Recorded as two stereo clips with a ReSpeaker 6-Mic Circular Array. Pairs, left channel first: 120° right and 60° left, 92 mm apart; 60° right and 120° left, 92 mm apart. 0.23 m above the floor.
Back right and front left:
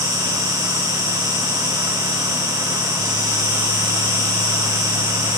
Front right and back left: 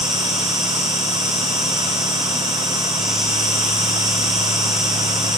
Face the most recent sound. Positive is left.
turn(degrees=40)